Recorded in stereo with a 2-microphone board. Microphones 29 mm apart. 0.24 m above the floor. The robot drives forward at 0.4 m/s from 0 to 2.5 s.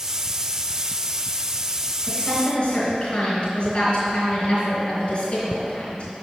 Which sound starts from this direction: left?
A woman speaking, at 2.0 s.